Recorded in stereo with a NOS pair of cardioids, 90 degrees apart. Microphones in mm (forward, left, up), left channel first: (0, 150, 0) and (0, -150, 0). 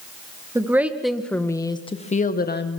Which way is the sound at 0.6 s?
10° right.